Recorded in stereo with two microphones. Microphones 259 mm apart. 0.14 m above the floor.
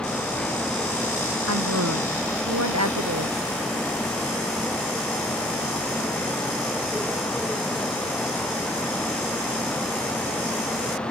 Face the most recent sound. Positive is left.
turn(degrees=-80)